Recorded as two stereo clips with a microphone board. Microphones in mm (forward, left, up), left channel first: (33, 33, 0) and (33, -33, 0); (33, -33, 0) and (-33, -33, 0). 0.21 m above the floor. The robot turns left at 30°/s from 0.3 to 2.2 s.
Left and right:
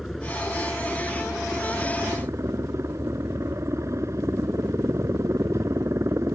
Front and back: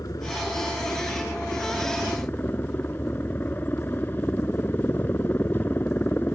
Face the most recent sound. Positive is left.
turn(degrees=-55)